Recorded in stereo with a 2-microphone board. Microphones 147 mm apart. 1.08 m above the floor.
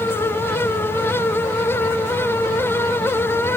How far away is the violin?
I don't hear a violin.